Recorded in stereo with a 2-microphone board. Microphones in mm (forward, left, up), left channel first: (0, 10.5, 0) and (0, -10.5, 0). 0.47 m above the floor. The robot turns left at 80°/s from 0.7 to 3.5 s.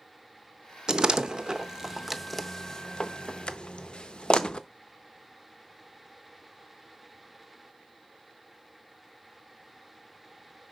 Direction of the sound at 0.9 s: 40° right (ahead or behind).